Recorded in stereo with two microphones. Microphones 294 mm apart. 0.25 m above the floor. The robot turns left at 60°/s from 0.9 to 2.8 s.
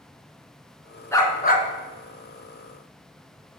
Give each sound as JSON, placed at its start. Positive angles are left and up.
{"t": 1.1, "sound": "a dog barking", "azimuth_deg": 170, "distance_m": 1.4}